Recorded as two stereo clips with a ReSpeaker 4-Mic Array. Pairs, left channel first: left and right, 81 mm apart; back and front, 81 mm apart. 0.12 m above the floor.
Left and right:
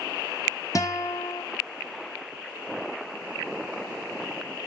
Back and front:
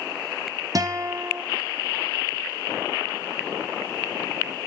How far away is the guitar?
About 1.3 m.